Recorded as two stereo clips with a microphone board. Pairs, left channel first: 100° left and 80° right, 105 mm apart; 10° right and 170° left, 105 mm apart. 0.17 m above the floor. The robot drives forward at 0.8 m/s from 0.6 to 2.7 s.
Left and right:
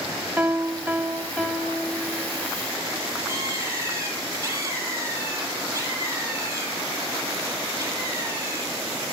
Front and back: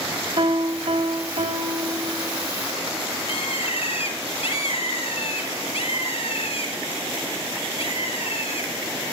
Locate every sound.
0.4 s a piano: 160° right, 4 m; by 2.5 s 165° right, 5.5 m
3.3 s a bird: 20° right, 4.5 m